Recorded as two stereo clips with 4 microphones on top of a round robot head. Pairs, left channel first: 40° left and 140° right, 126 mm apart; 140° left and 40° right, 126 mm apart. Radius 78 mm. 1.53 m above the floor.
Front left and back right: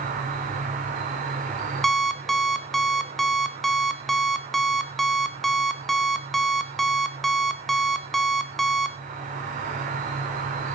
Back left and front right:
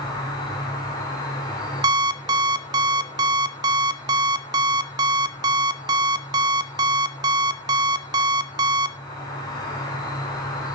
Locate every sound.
0.0 s an insect: 160° right, 6 m
1.8 s an alarm clock: 45° right, 0.8 m